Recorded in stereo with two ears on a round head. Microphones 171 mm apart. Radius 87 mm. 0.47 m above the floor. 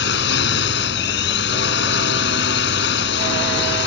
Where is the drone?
60° left (ahead or behind).